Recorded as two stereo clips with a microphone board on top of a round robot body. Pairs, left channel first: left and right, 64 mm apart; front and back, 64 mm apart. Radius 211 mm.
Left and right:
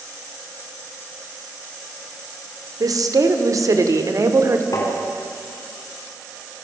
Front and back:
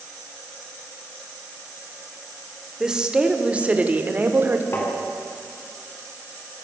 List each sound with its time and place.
2.8 s a woman speaking: 100° right, 3 m; by 4.6 s 125° right, 2.5 m
4.7 s tapping: 55° left, 4 m